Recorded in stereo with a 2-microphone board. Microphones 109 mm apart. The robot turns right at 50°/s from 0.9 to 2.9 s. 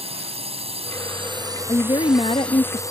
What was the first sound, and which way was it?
A drone, 70° right.